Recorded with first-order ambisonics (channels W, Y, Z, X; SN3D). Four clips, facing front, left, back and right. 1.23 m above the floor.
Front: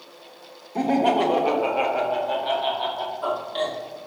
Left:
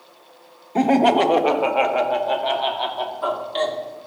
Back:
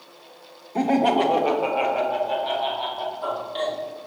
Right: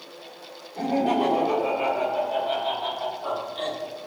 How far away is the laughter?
About 1.2 m.